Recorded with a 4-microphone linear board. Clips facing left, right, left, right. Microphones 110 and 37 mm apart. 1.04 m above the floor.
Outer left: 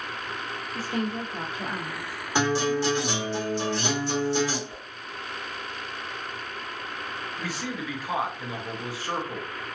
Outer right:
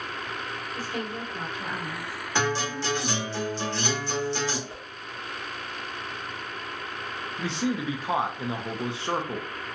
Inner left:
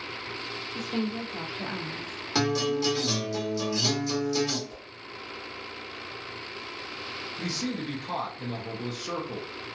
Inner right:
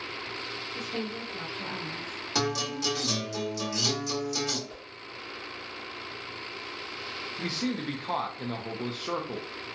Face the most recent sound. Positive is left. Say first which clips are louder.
# outer right 7 dB, inner right 1 dB
turn(degrees=-25)  # may be behind; listen again after turning